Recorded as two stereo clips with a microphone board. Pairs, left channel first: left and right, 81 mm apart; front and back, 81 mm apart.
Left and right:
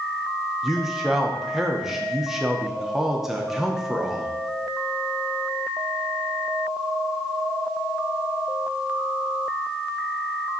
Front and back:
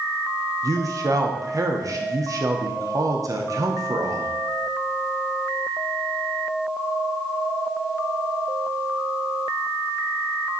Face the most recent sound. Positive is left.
turn(degrees=-175)